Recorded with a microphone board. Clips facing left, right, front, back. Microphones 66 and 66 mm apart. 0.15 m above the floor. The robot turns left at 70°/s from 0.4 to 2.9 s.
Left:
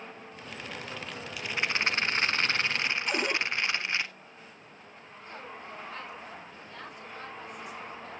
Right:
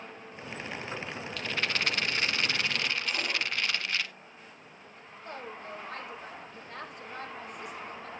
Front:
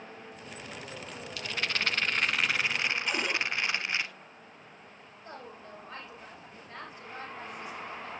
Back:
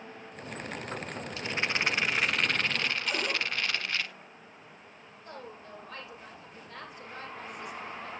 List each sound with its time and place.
1.4 s a rattle: 160° left, 0.8 m; by 4.1 s 50° left, 0.8 m
3.1 s a cupboard door: 85° left, 3 m
5.2 s a woman speaking: 60° right, 9.5 m